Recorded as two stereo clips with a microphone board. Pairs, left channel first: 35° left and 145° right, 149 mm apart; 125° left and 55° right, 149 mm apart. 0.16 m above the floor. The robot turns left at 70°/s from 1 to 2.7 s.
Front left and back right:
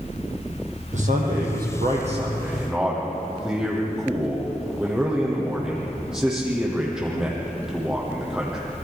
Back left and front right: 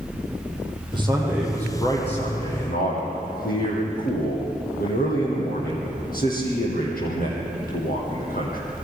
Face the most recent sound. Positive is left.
turn(degrees=130)